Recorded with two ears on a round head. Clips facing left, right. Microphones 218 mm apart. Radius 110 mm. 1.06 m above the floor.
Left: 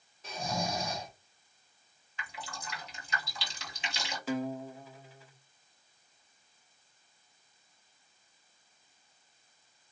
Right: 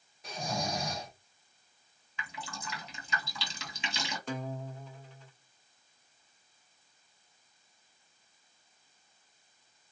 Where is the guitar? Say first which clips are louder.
Left 7 dB; 5° left (ahead or behind), 0.5 m.